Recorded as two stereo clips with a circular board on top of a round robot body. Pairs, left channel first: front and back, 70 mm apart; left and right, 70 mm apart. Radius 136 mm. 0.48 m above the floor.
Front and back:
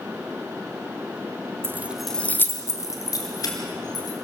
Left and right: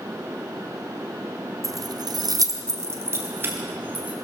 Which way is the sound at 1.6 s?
125° right.